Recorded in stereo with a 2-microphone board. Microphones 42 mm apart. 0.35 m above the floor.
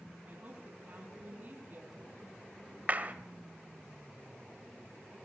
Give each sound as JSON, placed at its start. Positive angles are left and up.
{"t": 0.3, "sound": "a woman speaking", "side_deg": -40, "distance_m": 4.0}
{"t": 2.9, "sound": "a clap", "side_deg": -35, "distance_m": 1.0}